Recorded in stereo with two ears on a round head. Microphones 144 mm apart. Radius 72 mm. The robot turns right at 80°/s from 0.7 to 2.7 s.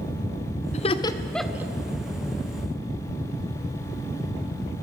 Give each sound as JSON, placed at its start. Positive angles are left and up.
{"t": 0.7, "sound": "laughter", "side_deg": 45, "distance_m": 1.7}